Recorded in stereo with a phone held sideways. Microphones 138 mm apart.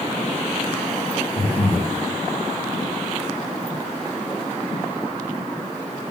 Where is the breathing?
45° left (ahead or behind), 0.9 m.